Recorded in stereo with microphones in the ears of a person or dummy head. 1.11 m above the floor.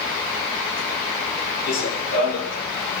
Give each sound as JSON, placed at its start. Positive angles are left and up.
{"t": 1.7, "sound": "running footsteps", "side_deg": 45, "distance_m": 2.0}